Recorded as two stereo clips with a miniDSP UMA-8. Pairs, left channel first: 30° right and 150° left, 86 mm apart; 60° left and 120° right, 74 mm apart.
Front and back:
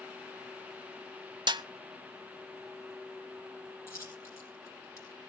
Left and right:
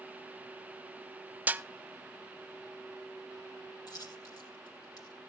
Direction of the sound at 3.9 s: 25° left.